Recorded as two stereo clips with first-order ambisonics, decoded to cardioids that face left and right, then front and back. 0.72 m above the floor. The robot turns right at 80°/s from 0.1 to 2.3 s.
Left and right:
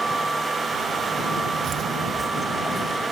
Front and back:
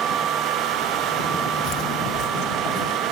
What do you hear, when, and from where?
1.6 s footsteps: 45° right; by 3.0 s 5° right